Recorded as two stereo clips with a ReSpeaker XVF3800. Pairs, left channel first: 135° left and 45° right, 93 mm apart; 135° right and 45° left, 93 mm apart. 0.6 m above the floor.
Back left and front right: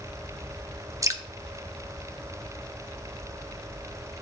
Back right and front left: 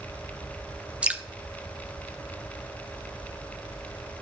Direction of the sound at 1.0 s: 20° right.